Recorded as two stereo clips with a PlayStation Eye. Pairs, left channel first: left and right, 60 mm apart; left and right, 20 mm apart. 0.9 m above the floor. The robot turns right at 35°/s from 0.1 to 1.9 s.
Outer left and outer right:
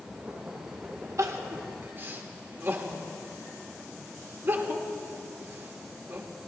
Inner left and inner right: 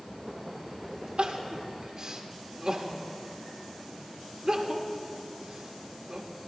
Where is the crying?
55° right (ahead or behind), 1.3 m; by 6.3 s 35° right (ahead or behind), 1.3 m.